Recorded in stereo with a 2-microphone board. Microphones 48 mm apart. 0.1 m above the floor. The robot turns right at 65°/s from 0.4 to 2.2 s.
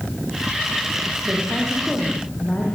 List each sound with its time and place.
1.2 s a woman speaking: 30° right, 9.5 m; by 2.8 s 30° left, 9.5 m